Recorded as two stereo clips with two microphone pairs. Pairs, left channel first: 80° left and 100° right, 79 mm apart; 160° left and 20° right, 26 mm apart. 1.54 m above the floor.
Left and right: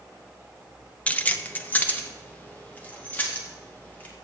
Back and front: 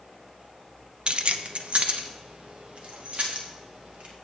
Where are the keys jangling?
15° left, 0.6 m.